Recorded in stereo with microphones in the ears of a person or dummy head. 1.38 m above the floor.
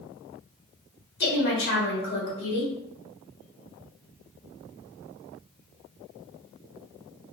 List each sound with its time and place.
1.2 s a woman speaking: 60° left (ahead or behind), 1.3 m